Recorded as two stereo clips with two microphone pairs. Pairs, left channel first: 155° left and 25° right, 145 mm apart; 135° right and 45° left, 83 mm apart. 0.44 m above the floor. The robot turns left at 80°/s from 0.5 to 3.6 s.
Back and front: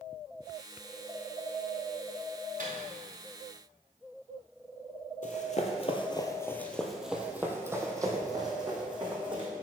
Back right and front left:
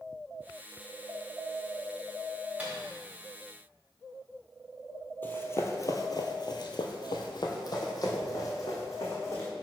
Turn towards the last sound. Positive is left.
turn(degrees=-85)